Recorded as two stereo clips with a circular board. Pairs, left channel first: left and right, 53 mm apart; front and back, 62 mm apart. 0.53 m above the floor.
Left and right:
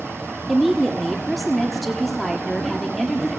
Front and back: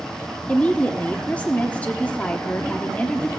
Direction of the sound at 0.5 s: 5° left.